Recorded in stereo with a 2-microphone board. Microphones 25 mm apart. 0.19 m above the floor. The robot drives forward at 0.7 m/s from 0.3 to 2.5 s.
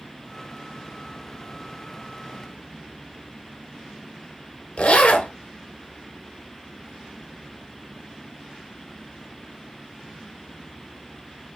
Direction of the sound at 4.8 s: 65° left (ahead or behind).